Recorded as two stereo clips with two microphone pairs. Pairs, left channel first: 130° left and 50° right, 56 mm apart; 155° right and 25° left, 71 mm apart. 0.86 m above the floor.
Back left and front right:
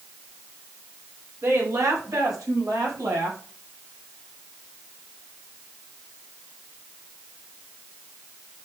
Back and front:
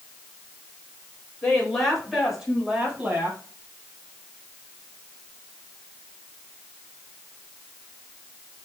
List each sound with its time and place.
1.4 s a woman speaking: 75° right, 4.5 m; by 3.4 s 40° right, 5 m